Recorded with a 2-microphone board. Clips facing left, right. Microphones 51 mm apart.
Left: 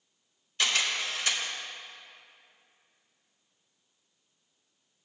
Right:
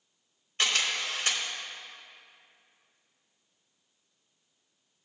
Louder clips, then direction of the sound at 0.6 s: Even; 45° right (ahead or behind).